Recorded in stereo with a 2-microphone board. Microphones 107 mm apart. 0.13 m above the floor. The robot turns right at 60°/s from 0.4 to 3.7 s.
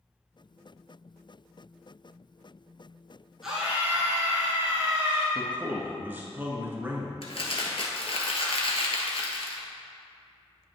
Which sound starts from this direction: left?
Crumpling, at 7.2 s.